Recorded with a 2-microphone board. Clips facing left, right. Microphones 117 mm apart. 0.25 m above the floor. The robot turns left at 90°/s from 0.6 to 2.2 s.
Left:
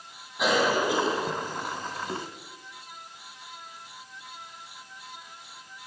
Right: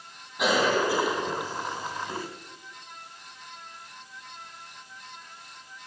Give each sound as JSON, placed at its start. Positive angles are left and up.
{"t": 0.4, "sound": "a cough", "azimuth_deg": 180, "distance_m": 2.0}